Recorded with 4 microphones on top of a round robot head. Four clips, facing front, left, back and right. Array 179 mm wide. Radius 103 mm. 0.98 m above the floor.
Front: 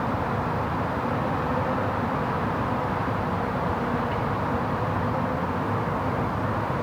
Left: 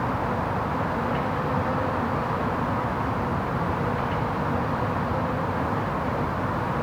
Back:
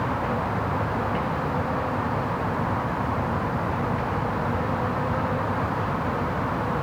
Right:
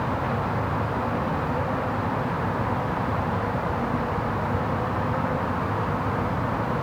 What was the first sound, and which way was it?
Only background noise.